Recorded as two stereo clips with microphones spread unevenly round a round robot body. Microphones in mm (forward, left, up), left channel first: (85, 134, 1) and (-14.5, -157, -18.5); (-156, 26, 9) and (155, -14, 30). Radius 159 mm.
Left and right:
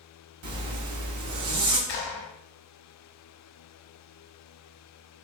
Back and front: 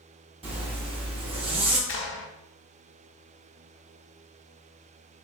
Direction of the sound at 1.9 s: 130° left.